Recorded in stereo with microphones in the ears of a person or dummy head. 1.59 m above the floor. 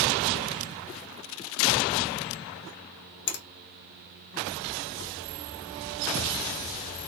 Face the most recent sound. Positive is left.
turn(degrees=55)  # may be behind; listen again after turning